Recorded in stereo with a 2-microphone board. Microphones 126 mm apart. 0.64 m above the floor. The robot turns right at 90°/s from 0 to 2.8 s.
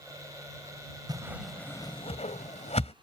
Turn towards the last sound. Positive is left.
turn(degrees=60)  # may be behind; listen again after turning